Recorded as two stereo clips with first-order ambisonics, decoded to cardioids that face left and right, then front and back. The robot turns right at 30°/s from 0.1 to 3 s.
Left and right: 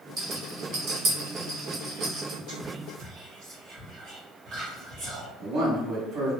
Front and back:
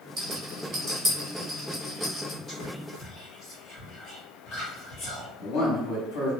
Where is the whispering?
65° right, 1.6 m; by 5.3 s 50° right, 1.6 m.